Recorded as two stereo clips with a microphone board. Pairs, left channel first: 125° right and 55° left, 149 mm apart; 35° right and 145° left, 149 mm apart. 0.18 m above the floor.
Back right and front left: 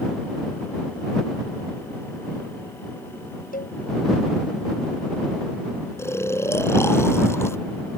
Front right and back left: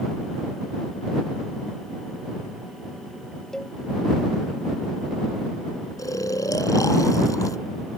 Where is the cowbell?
120° right.